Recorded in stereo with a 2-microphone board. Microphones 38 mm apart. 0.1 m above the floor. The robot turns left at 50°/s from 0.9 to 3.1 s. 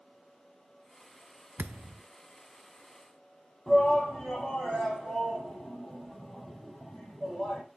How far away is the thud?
About 0.5 m.